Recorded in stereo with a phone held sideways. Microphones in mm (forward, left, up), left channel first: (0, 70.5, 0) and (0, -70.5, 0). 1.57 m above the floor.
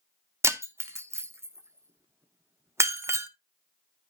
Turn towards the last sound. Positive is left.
turn(degrees=-20)  # may be behind; listen again after turning